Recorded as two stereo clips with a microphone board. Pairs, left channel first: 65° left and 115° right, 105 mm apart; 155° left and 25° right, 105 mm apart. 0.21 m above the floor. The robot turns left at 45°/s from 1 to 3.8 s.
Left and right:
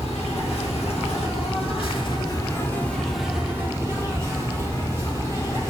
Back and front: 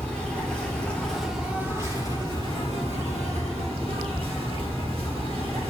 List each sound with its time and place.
0.0 s an insect: 75° left, 3.5 m; by 5.7 s 50° right, 3.5 m